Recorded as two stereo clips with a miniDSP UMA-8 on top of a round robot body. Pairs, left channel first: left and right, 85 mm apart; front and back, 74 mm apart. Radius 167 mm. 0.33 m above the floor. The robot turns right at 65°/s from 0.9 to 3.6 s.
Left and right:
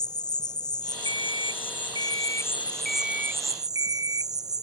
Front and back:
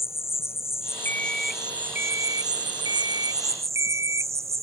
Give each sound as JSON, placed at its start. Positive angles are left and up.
{"t": 0.0, "sound": "an insect", "azimuth_deg": 55}
{"t": 1.1, "sound": "an alarm clock", "azimuth_deg": 60}